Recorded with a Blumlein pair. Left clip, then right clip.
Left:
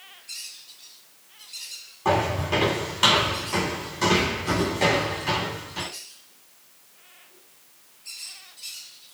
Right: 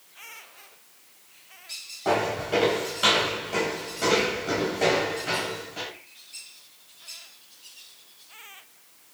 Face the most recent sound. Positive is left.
turn(degrees=55)